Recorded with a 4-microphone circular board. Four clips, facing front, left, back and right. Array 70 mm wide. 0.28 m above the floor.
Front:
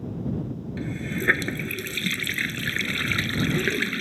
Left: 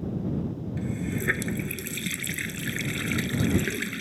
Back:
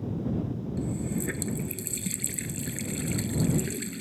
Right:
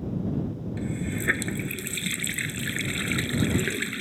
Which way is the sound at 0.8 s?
5° right.